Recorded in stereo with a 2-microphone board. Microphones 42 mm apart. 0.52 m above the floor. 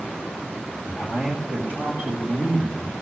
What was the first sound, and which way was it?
A man speaking, 55° right (ahead or behind).